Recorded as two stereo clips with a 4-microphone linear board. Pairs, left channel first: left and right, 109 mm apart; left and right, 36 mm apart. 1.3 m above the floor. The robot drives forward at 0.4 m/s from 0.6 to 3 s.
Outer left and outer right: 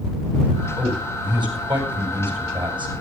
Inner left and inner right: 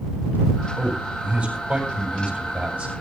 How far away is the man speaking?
About 7.5 m.